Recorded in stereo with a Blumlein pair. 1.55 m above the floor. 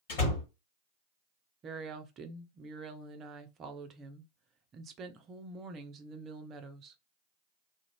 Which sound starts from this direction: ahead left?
A door slam, at 0.1 s.